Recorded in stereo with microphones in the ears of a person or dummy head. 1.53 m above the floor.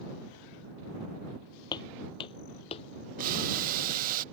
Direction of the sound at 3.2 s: 45° right (ahead or behind).